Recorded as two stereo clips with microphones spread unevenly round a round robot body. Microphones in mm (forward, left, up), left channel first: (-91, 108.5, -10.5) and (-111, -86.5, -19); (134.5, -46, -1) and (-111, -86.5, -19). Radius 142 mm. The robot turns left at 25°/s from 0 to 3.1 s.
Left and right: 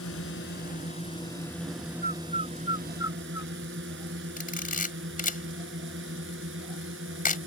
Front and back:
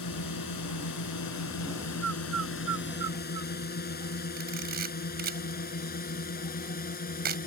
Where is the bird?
145° right; by 3.5 s 170° right.